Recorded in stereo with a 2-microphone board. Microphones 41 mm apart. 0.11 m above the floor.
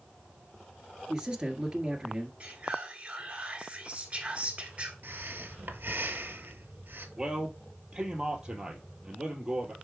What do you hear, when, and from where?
1.1 s a man speaking: 20° right (ahead or behind), 1.5 m
2.4 s whispering: 30° right (ahead or behind), 1.2 m
5.0 s breathing: 60° right (ahead or behind), 0.8 m
7.2 s a man speaking: 20° right (ahead or behind), 2.5 m